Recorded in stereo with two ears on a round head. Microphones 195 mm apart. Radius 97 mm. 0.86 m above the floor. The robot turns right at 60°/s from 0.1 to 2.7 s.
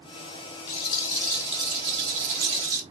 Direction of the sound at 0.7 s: 130° left.